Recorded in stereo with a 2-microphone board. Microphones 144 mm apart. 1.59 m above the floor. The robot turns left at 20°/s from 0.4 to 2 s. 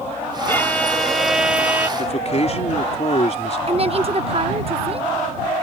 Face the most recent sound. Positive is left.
turn(degrees=-40)  # may be behind; listen again after turning